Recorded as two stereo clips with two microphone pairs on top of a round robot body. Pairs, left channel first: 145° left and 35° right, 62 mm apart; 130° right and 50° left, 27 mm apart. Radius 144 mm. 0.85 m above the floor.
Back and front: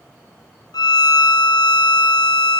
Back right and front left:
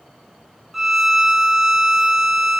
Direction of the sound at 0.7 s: 135° left.